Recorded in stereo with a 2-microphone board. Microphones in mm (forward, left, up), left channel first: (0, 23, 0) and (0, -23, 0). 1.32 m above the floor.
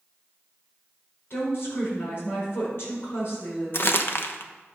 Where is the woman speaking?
60° left (ahead or behind), 4.5 m.